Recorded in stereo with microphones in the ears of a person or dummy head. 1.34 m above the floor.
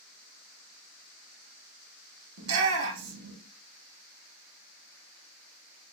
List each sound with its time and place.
2.4 s a shout: 75° right (ahead or behind), 1.2 m